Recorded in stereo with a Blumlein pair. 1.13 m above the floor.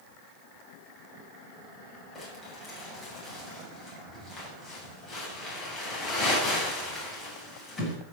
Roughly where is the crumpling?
Ahead.